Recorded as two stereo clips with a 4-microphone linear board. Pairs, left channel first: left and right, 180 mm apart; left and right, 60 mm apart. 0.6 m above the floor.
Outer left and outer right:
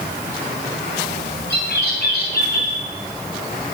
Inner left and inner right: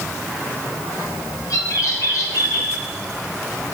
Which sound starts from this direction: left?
A bird, at 1.5 s.